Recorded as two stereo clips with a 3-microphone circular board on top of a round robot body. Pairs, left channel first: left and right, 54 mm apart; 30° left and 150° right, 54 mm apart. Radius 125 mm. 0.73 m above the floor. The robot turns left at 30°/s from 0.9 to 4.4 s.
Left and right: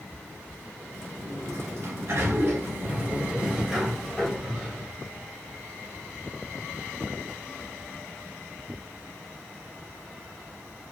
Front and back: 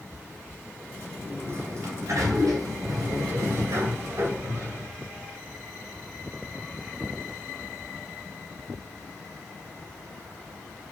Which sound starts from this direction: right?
A sliding door, at 1.2 s.